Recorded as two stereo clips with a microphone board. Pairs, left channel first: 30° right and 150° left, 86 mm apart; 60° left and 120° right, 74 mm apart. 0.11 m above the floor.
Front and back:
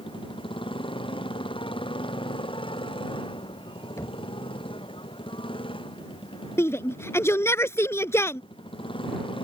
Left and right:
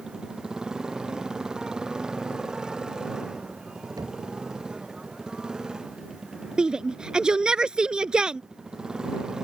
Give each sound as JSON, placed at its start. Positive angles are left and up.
{"t": 0.0, "sound": "a motorcycle", "azimuth_deg": -40}
{"t": 4.0, "sound": "knocking", "azimuth_deg": -85}
{"t": 6.6, "sound": "a shout", "azimuth_deg": -50}